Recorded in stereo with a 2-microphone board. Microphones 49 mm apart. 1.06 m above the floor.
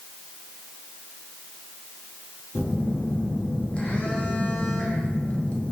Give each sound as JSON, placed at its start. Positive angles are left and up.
{"t": 2.5, "sound": "a phone buzzing", "side_deg": 25, "distance_m": 0.5}